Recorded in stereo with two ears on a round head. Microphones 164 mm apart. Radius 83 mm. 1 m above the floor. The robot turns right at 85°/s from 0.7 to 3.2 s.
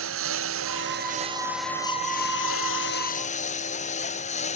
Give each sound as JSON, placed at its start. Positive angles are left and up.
{"t": 0.0, "sound": "a lawn mower", "side_deg": -80}